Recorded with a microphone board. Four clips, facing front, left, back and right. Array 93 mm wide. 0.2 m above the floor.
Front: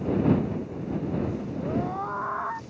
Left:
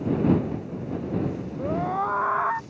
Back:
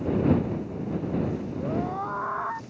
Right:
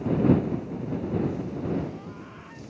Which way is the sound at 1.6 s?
85° left.